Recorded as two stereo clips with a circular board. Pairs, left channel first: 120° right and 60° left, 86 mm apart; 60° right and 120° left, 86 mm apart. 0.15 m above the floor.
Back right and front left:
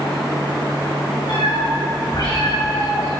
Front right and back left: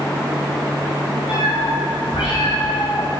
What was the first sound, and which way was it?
A cat meowing, 85° right.